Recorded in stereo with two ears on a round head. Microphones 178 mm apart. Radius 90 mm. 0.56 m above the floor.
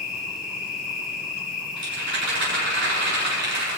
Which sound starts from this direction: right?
A rattle, at 1.8 s.